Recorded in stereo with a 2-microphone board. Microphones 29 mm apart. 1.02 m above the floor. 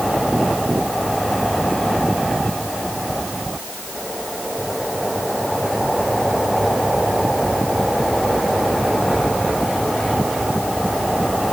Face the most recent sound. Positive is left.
No sound to turn to.